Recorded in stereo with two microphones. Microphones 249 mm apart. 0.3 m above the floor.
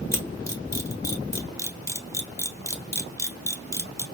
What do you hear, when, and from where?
0.1 s a camera shutter: 10° left (ahead or behind), 0.9 m